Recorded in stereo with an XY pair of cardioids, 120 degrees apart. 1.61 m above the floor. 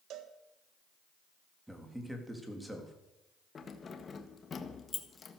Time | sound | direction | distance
0.1 | a cowbell | 70° right | 1.6 m
1.7 | a man speaking | 10° right | 3.5 m
3.5 | keys jangling | 30° left | 1.6 m